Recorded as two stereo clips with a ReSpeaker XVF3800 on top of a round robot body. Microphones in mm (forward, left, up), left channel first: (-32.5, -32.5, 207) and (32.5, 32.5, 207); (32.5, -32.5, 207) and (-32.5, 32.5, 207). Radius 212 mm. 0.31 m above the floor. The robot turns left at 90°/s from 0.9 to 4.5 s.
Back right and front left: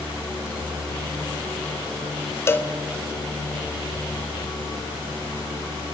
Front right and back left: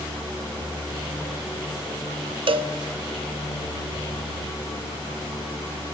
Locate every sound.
2.5 s a cowbell: 165° left, 0.6 m; by 2.7 s 140° left, 0.6 m